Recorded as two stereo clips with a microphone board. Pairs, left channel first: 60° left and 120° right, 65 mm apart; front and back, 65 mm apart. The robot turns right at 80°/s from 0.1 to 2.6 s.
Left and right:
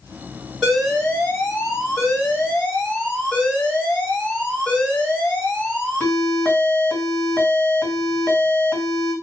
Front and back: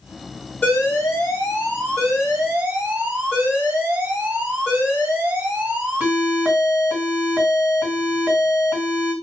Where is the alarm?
35° right, 1.7 m; by 9.1 s 125° left, 1.7 m.